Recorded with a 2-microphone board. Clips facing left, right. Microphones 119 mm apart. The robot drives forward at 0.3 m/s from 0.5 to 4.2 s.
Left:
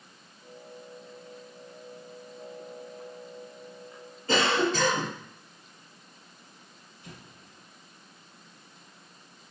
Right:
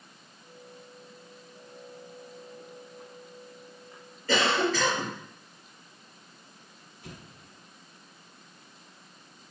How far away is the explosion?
About 0.6 m.